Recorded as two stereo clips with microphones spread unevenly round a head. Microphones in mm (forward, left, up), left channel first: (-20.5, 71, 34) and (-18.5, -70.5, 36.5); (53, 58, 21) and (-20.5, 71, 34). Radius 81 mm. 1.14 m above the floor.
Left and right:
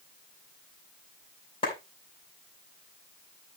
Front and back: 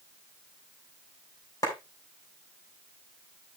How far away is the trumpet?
No trumpet in this recording.